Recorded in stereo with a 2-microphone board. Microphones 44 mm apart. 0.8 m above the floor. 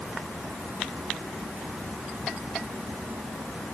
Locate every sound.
Only background noise.